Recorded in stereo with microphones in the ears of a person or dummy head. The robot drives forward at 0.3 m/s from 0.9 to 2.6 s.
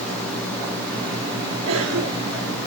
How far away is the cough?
About 5.5 m.